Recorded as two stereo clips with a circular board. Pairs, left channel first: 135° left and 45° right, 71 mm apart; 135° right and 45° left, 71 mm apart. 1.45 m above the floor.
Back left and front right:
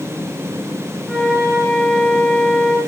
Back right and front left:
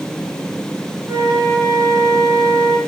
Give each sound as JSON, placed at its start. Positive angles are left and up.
{"t": 1.1, "sound": "a flute", "azimuth_deg": 50, "distance_m": 3.5}